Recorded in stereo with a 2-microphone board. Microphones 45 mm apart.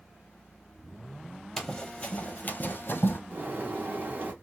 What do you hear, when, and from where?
1.6 s running footsteps: 10° left (ahead or behind), 0.8 m; by 3.2 s 50° left (ahead or behind), 1.0 m
3.3 s a bird: 45° right (ahead or behind), 1.3 m